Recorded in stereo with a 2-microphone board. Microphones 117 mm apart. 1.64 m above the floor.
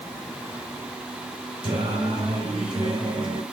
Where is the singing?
45° right (ahead or behind), 5.5 m.